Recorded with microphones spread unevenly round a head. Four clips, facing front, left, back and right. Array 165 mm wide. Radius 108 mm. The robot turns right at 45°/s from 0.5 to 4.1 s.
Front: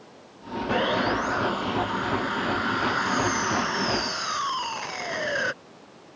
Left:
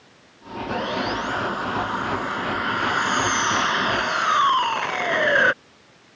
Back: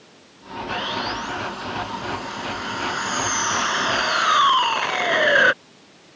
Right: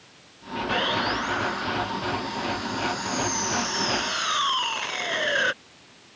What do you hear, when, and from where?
0.7 s sawing: 5° left; by 5.5 s 160° left